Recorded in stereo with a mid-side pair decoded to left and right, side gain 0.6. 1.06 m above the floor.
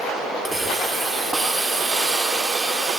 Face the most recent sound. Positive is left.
turn(degrees=-15)